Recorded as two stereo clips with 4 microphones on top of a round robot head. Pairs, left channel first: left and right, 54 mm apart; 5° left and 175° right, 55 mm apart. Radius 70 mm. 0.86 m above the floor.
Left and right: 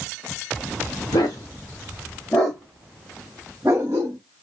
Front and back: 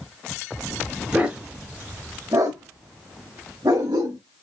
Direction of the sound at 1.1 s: 115° left.